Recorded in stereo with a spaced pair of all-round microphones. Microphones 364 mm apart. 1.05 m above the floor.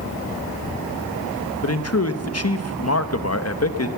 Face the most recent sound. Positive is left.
turn(degrees=40)  # may be behind; listen again after turning